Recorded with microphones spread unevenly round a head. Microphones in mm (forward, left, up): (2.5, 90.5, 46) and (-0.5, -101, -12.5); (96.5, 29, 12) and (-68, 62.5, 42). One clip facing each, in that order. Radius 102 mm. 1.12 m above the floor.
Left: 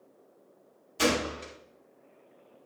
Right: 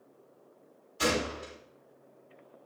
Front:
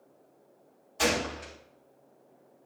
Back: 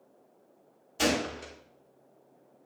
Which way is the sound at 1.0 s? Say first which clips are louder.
Left 3 dB, back 1 dB; 110° left.